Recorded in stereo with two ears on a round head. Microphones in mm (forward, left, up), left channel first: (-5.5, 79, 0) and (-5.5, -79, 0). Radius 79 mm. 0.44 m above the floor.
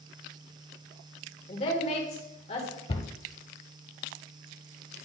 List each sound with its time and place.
1.5 s a woman speaking: 35° left (ahead or behind), 1.7 m
2.9 s a cupboard door: 30° left (ahead or behind), 0.7 m